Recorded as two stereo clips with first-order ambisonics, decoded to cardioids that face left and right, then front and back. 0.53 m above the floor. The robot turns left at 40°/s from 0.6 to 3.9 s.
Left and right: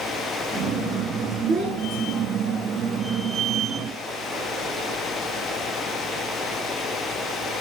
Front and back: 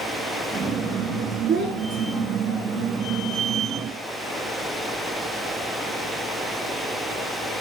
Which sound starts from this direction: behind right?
A child speaking, at 1.5 s.